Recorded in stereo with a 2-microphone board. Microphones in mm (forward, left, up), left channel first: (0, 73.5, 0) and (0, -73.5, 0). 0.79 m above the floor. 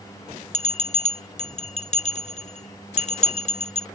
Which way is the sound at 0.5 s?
55° left (ahead or behind).